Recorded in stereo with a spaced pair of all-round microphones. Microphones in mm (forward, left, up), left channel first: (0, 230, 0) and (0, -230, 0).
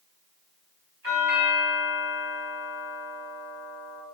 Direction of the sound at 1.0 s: 45° right (ahead or behind).